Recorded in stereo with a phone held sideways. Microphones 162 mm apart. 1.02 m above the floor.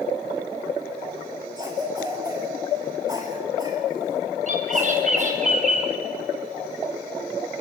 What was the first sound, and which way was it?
A cough, 25° right (ahead or behind).